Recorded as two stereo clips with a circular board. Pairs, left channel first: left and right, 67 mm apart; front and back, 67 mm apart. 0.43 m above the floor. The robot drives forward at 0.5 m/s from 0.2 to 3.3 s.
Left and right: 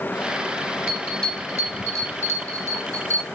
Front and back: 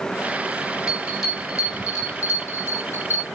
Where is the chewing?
I don't hear chewing.